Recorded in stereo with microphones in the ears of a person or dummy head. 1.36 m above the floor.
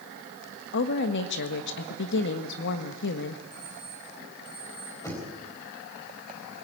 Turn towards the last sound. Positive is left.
turn(degrees=15)  # may be behind; listen again after turning